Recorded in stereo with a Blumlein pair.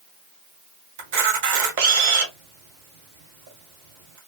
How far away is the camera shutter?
About 1.6 m.